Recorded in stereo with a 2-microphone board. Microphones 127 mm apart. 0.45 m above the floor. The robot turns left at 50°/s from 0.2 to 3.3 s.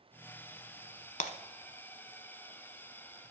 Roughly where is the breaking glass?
Left.